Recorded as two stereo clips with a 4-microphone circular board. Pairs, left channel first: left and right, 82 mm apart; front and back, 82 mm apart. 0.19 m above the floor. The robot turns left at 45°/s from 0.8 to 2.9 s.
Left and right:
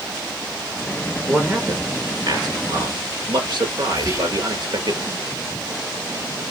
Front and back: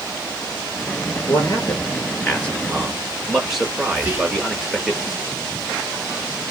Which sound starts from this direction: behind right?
Whispering, at 4.0 s.